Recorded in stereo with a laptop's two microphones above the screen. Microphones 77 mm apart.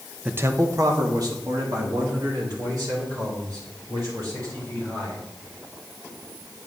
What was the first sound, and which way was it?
A man speaking, 15° right (ahead or behind).